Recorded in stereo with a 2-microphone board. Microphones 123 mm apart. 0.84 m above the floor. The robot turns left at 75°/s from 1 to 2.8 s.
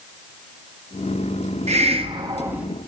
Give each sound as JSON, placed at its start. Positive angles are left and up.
{"t": 1.7, "sound": "a hiss", "azimuth_deg": -100, "distance_m": 0.7}